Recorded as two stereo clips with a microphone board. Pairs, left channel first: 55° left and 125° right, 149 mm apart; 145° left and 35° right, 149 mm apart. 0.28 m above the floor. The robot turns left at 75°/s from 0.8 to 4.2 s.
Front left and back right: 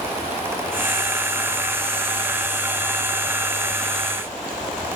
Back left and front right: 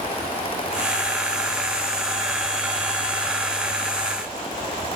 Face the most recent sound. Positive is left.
No sound to turn to.